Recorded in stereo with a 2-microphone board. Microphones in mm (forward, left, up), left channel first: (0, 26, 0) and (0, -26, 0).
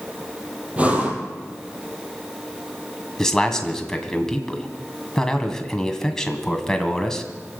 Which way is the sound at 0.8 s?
25° right (ahead or behind).